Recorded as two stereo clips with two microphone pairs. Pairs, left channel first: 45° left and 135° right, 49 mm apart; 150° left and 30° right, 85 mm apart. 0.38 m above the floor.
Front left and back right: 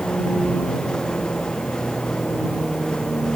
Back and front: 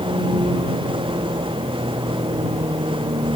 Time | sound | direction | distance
0.0 | a vehicle | 30° right | ?